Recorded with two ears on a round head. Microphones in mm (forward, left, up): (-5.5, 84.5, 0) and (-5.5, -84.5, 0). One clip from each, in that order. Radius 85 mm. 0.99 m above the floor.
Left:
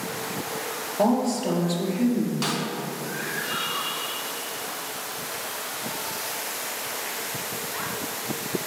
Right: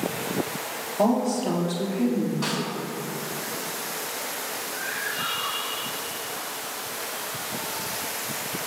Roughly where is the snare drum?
Left.